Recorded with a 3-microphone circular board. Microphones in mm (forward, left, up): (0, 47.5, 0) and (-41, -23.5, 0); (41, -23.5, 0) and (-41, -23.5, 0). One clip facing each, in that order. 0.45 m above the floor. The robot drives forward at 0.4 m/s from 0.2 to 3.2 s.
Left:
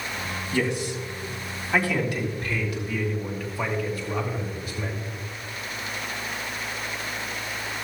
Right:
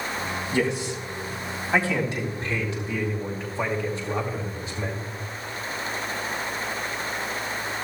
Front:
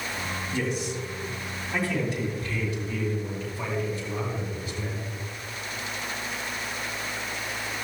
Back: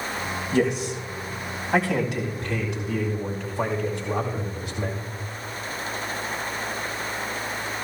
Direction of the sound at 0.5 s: 175° left.